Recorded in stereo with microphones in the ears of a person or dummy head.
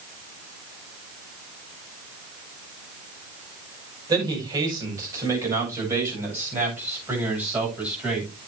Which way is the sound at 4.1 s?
25° right (ahead or behind).